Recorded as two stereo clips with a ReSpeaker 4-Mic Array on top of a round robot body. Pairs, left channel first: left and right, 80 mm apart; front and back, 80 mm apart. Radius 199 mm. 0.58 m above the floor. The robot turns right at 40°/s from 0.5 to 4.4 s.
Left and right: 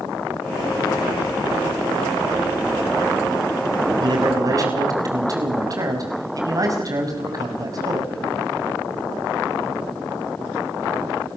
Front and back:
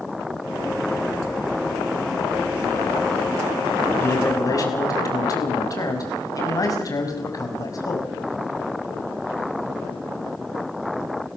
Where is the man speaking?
65° right, 5.5 m; by 8.2 s 45° right, 5.5 m.